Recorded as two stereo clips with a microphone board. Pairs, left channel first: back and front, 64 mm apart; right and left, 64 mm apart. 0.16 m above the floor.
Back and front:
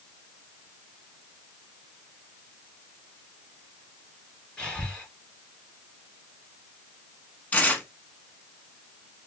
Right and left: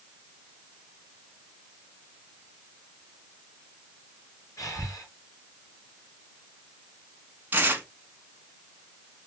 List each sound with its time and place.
4.6 s breathing: 105° right, 3 m
7.5 s tearing paper: 130° left, 1.1 m